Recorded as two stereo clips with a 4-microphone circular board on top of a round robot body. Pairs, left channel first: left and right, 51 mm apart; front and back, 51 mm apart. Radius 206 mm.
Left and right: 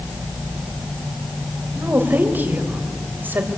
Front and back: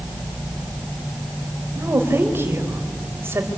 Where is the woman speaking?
140° right, 3.5 m.